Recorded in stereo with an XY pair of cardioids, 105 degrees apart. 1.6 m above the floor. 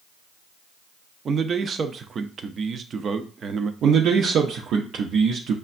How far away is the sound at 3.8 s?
About 0.6 m.